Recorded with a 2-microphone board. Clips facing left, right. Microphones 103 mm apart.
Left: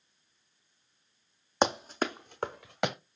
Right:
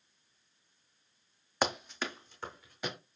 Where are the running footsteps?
25° left (ahead or behind), 0.6 m; by 3.0 s 75° left (ahead or behind), 1.1 m.